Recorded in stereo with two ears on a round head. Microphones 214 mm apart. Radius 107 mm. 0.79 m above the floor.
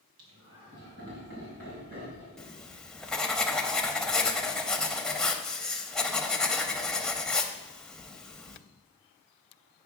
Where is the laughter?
60° right (ahead or behind), 3.5 m; by 2.3 s 35° right (ahead or behind), 4.5 m.